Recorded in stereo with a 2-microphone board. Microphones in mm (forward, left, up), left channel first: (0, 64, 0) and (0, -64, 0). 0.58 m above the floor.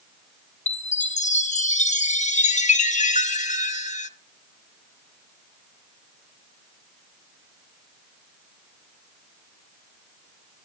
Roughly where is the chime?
Left.